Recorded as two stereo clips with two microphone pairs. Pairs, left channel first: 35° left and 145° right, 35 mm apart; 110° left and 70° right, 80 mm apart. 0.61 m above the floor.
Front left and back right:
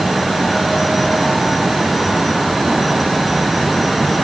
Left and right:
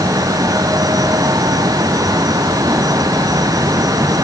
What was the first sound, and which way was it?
Only background noise.